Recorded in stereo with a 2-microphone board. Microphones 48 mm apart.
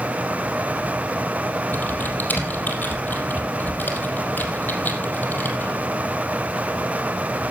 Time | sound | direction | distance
1.7 | typing on a keyboard | 35° left (ahead or behind) | 4 m